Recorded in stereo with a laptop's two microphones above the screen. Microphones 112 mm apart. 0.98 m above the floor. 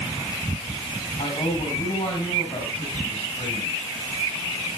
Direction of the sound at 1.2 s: 45° left (ahead or behind).